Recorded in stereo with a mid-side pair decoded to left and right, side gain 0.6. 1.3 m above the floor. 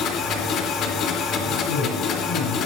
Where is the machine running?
60° left, 3 m.